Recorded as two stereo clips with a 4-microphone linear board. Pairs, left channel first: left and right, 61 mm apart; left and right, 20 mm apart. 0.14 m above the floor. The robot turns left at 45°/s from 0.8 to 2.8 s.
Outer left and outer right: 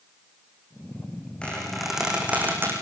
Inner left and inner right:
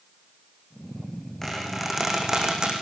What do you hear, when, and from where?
1.4 s a squeak: 20° left (ahead or behind), 5 m; by 2.7 s 40° right (ahead or behind), 5 m